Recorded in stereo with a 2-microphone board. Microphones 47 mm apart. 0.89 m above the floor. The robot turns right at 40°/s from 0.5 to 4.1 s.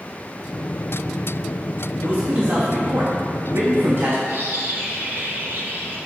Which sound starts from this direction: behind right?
A man speaking, at 2.0 s.